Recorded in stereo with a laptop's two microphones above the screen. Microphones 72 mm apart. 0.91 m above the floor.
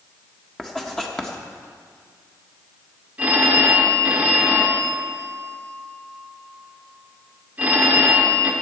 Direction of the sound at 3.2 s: 25° right (ahead or behind).